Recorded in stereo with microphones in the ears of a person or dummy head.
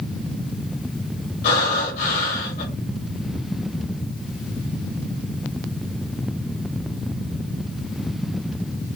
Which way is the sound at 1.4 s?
50° left (ahead or behind).